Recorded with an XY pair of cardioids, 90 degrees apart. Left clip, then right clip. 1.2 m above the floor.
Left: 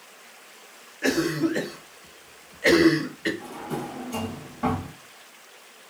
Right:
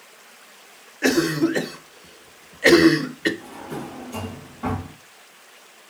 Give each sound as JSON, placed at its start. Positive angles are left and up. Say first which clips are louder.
{"t": 1.0, "sound": "a cough", "louder": "right 4 dB", "azimuth_deg": -40, "distance_m": 0.6}
{"t": 3.4, "sound": "a drawer", "louder": "left 1 dB", "azimuth_deg": 45, "distance_m": 1.5}